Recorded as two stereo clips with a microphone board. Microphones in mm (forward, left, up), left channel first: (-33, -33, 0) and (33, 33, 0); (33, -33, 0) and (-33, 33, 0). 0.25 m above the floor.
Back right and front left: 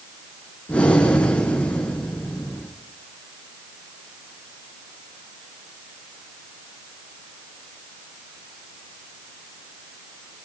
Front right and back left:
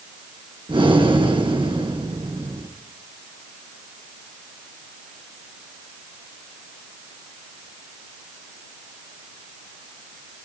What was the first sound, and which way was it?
Breathing, 150° left.